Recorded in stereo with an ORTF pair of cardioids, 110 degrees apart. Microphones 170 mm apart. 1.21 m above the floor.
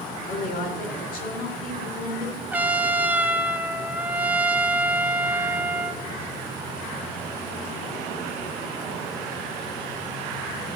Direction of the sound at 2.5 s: 10° right.